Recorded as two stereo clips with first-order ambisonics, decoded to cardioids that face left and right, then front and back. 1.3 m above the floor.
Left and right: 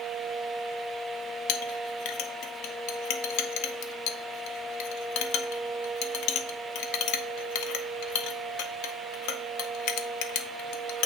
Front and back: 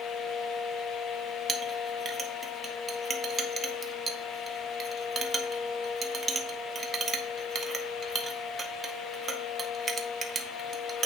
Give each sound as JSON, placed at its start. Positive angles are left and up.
{"t": 1.5, "sound": "a clink", "azimuth_deg": 110, "distance_m": 0.6}